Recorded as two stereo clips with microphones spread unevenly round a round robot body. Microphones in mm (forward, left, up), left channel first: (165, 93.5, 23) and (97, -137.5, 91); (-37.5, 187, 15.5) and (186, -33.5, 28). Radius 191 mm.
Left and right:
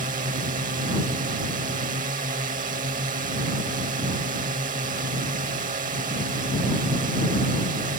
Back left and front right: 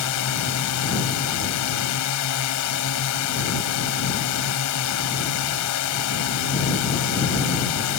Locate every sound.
0.0 s a drone: 175° right